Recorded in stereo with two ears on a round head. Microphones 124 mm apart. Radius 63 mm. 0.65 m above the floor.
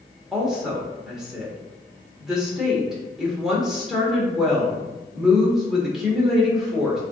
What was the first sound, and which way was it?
A woman speaking, 5° right (ahead or behind).